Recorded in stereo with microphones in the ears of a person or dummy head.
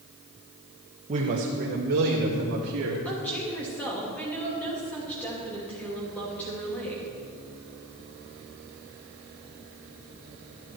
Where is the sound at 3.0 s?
10° left (ahead or behind), 2.5 m.